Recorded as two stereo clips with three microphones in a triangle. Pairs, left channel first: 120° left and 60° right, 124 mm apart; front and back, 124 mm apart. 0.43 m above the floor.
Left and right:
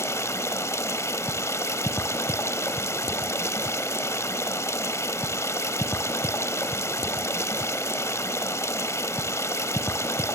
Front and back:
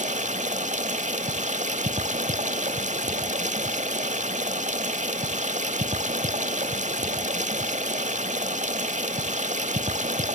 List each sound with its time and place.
0.0 s running water: 175° right, 0.8 m